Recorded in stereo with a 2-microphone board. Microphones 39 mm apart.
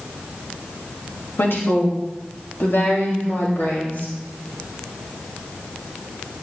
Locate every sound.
1.4 s a woman speaking: 65° left (ahead or behind), 2 m; by 4.1 s 70° left (ahead or behind), 3.5 m